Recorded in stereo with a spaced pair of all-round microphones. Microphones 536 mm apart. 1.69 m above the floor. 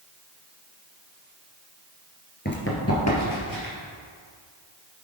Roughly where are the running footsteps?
Centre.